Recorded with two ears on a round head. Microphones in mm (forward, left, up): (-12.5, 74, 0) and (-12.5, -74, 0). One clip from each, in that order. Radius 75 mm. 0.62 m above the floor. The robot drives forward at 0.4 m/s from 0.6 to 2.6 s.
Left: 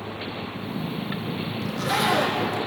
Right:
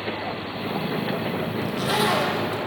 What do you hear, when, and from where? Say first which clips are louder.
1.6 s a zipper: even; 30° right (ahead or behind), 6 m